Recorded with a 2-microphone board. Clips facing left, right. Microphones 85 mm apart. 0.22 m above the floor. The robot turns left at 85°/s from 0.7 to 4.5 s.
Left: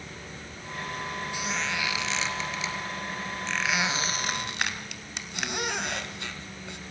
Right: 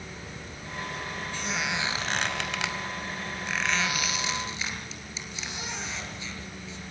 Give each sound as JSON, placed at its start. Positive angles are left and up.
{"t": 1.3, "sound": "a squeak", "side_deg": 15, "distance_m": 1.8}